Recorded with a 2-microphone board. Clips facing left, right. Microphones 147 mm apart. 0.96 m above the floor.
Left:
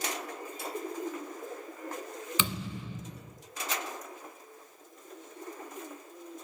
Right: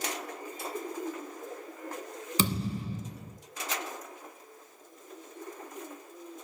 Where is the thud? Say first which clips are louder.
Right 7 dB; 40° right (ahead or behind), 1.6 m.